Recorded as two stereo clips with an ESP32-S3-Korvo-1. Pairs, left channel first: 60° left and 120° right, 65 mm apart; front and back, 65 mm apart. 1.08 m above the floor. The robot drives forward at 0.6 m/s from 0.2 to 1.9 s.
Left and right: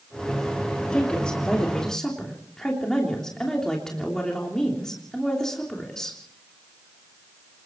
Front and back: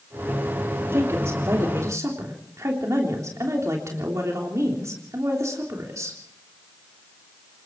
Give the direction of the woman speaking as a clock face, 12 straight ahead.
8 o'clock.